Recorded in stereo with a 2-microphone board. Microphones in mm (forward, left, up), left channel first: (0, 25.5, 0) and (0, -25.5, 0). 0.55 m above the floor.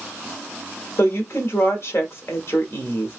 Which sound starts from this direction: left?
A woman speaking, at 1.0 s.